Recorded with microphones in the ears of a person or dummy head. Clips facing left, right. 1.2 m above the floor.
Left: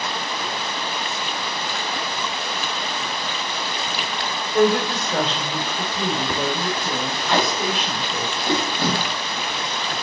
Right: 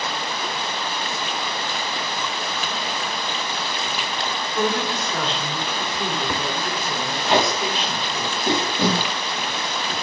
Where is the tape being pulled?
20° right (ahead or behind), 1.3 m.